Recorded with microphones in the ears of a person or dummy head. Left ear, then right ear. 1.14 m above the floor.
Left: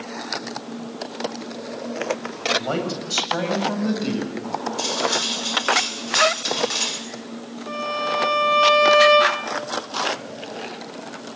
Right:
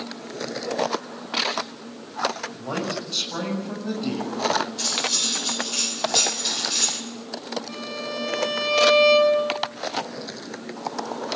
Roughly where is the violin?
Left.